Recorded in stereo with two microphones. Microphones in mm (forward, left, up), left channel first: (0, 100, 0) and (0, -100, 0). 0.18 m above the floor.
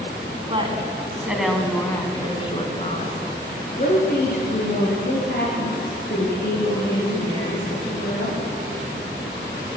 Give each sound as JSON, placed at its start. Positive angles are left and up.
{"t": 0.5, "sound": "a woman speaking", "side_deg": -30, "distance_m": 1.7}